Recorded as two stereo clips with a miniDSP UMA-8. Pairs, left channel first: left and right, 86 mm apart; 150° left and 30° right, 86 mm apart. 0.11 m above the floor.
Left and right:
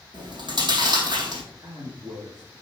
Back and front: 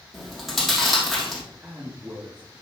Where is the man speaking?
85° right, 2.0 m.